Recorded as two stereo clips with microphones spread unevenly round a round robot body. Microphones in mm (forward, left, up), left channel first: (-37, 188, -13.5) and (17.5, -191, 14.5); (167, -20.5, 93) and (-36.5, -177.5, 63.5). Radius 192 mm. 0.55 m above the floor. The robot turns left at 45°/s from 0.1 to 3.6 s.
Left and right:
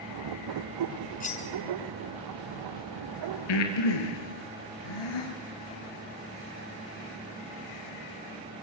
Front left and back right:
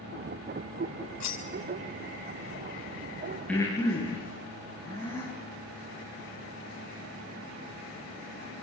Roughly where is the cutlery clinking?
Ahead left.